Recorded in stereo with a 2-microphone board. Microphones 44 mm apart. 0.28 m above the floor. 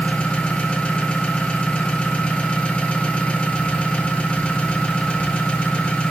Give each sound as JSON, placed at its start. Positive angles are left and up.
{"t": 0.0, "sound": "an engine running", "side_deg": 25, "distance_m": 1.2}